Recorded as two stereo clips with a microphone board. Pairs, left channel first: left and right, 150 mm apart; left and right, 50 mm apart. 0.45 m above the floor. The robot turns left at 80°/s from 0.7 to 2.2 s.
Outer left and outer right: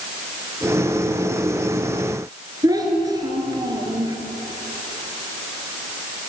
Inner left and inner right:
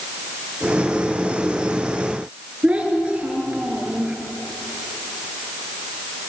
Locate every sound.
2.6 s a child speaking: 25° right (ahead or behind), 3.5 m